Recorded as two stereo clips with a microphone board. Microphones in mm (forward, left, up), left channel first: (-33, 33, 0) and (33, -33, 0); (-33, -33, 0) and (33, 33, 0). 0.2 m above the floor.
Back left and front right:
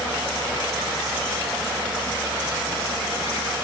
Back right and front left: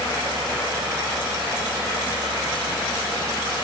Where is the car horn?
No car horn in this recording.